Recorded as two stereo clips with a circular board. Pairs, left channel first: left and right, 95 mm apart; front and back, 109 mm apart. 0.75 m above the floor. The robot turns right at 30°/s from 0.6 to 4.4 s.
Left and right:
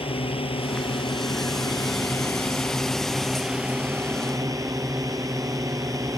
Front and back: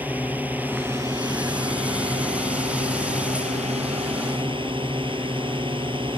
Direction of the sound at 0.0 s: 105° left.